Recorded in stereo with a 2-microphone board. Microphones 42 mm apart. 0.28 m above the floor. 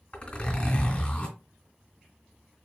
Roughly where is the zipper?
Left.